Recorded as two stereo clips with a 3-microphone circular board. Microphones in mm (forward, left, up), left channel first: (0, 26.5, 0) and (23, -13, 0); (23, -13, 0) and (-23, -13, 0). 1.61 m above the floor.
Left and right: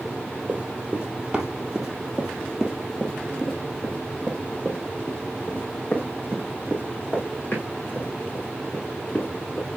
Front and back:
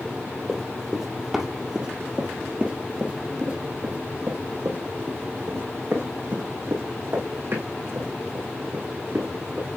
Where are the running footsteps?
75° right, 1.8 m; by 9.7 s 165° left, 5 m.